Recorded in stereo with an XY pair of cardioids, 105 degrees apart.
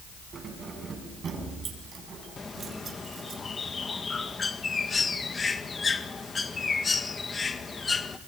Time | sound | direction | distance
0.3 | keys jangling | 45° right | 9 m
2.4 | a bird | 30° left | 1.9 m